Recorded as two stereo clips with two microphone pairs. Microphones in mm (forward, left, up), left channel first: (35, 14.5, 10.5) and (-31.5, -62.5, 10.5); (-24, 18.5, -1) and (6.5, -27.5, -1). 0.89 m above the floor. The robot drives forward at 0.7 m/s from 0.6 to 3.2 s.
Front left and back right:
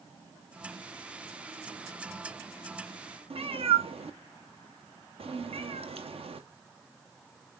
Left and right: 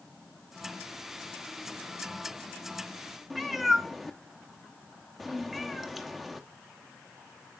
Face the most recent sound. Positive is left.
turn(degrees=-150)